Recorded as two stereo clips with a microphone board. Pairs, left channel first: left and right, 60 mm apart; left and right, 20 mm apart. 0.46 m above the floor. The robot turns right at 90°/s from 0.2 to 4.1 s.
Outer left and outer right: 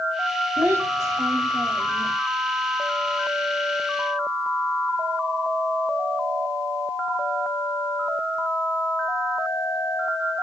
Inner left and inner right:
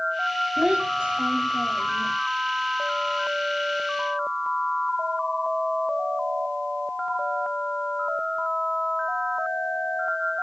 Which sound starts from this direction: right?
A child speaking, at 0.6 s.